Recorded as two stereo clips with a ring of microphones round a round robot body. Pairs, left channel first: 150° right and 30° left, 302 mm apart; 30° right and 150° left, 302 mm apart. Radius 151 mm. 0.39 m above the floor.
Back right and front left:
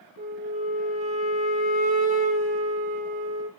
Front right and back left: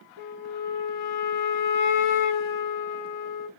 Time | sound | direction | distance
0.2 | a flute | 35° right | 0.8 m